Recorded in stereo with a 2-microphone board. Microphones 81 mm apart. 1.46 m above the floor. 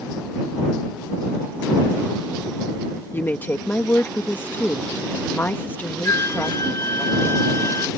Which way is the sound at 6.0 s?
35° left (ahead or behind).